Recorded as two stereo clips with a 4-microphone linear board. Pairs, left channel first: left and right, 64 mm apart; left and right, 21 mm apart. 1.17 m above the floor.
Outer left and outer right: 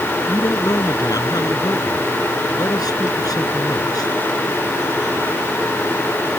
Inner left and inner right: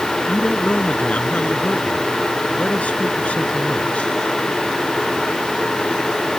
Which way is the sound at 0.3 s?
65° left (ahead or behind).